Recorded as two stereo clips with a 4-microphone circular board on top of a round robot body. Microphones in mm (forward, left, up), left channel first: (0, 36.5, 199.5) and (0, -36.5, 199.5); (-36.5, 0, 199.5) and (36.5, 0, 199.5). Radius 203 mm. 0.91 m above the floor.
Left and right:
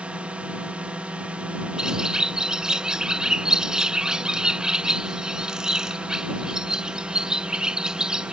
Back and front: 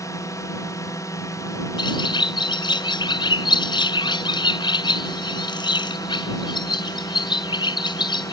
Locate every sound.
0.0 s a drone: 160° right
1.8 s a bird: 170° right